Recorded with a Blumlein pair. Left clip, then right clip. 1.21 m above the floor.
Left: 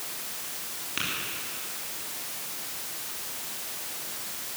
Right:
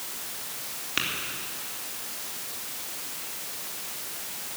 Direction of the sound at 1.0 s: 15° right.